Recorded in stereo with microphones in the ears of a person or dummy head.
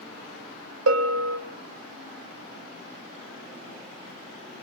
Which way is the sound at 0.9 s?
80° right.